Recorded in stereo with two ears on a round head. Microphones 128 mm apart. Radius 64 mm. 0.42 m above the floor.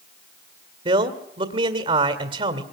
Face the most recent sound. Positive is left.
turn(degrees=-40)  # may be behind; listen again after turning